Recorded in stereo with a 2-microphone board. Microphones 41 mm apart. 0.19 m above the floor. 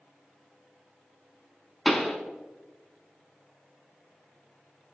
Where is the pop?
Centre (ahead or behind), 0.6 m.